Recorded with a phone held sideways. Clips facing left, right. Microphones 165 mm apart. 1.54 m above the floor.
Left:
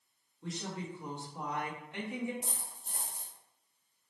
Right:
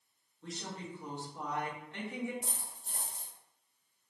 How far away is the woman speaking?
About 0.9 m.